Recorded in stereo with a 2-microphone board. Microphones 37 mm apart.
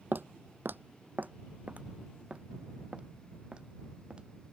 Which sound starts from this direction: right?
Footsteps, at 0.1 s.